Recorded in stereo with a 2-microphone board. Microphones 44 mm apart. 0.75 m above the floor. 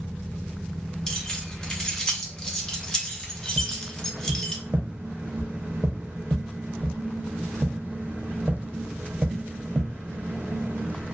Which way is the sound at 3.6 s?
55° right (ahead or behind).